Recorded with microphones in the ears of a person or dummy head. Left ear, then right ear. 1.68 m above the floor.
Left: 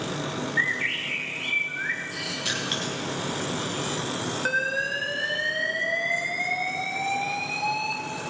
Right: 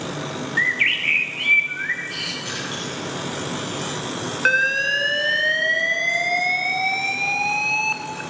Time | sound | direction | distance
0.6 | a bird | 25° right (ahead or behind) | 1.0 m
2.5 | crushing | 70° left (ahead or behind) | 2.5 m
4.5 | an alarm | 75° right (ahead or behind) | 0.8 m